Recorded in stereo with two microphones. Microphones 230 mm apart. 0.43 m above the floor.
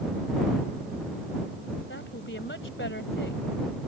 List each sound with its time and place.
1.9 s a woman speaking: 55° left (ahead or behind)